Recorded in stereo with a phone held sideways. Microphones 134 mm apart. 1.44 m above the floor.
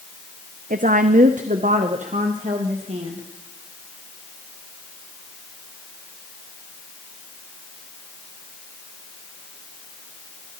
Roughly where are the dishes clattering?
I don't hear dishes clattering.